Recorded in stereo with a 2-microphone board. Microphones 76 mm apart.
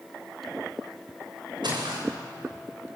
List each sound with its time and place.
1.6 s footsteps: 85° right, 5 m